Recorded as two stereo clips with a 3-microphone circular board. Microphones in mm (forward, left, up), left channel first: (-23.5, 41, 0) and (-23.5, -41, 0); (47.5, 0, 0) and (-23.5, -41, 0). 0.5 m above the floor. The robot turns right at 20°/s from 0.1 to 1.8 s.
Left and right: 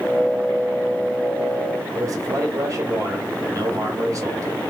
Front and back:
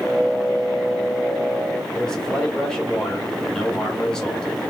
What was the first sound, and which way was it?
A man speaking, 50° right.